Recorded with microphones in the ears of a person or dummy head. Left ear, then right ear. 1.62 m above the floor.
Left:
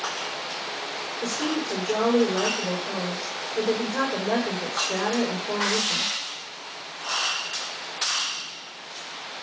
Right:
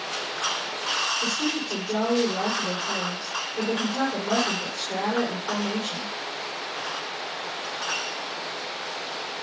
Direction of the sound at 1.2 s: 55° left (ahead or behind).